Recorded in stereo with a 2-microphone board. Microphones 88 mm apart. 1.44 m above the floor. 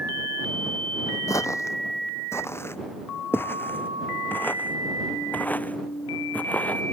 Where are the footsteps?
35° left (ahead or behind); by 6.8 s 15° left (ahead or behind).